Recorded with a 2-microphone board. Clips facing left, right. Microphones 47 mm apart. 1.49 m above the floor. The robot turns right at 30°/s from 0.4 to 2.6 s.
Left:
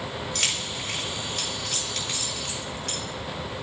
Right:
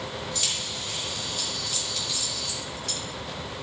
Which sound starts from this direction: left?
Keys jangling, at 0.3 s.